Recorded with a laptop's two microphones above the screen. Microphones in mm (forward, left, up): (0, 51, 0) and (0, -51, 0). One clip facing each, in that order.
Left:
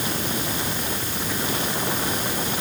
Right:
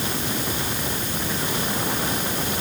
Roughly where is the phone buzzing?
I don't hear a phone buzzing.